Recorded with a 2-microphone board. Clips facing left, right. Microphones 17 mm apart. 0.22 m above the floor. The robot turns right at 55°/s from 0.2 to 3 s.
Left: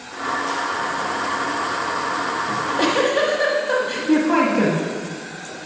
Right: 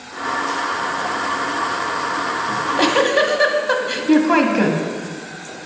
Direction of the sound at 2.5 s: 30° right (ahead or behind).